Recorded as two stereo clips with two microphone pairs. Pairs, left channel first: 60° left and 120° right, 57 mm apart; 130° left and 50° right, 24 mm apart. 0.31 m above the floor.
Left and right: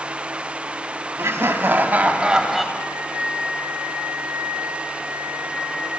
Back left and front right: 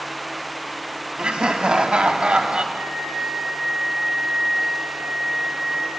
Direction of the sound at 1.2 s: 90° right.